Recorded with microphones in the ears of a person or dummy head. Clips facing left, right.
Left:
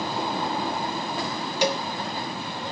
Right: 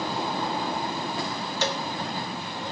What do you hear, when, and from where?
1.6 s a cowbell: 15° left (ahead or behind), 0.5 m